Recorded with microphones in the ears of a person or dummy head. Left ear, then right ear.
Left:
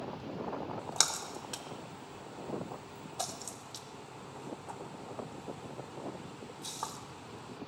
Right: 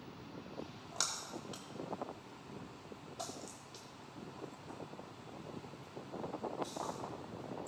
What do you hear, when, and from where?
0.8 s a splash: 30° left (ahead or behind), 0.7 m